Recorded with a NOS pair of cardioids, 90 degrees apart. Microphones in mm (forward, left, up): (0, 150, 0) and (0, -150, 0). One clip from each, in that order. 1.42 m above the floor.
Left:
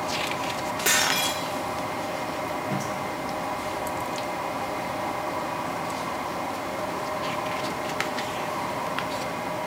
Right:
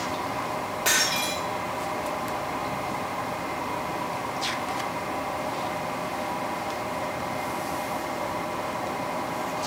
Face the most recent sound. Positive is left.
turn(degrees=15)